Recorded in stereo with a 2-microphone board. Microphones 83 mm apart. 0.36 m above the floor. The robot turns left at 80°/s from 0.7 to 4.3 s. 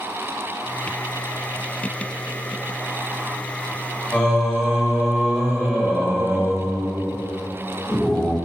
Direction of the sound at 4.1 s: 15° left (ahead or behind).